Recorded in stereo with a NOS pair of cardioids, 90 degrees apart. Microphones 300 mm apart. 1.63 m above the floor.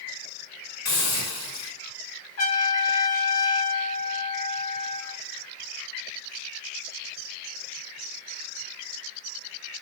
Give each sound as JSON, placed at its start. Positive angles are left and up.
{"t": 0.8, "sound": "a hiss", "azimuth_deg": 65, "distance_m": 1.5}
{"t": 2.4, "sound": "a trumpet", "azimuth_deg": 55, "distance_m": 1.1}